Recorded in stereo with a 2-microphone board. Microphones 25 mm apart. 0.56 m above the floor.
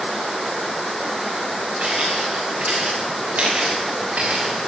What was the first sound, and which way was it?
Footsteps, 55° right (ahead or behind).